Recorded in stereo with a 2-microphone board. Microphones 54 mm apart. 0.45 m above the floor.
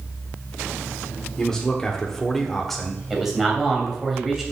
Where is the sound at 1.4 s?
10° left (ahead or behind), 1.1 m; by 3.0 s centre (ahead or behind), 1.6 m.